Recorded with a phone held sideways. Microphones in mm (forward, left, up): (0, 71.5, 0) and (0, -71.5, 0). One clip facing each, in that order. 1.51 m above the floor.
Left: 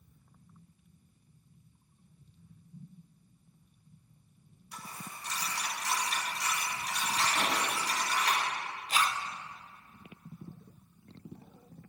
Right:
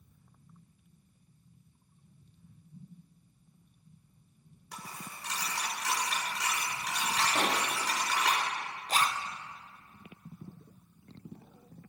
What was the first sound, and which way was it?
A dropped coin, 75° right (ahead or behind).